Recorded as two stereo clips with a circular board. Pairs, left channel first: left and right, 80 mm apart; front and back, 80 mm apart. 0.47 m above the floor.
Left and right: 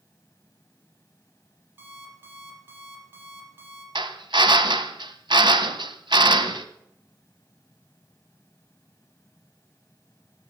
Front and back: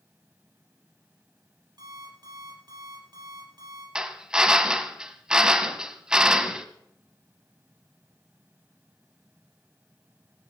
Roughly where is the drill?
Right.